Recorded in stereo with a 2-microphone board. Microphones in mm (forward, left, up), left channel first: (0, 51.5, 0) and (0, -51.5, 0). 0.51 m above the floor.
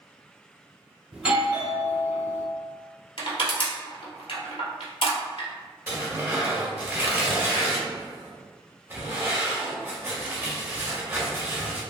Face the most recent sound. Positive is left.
turn(degrees=-20)  # may be behind; listen again after turning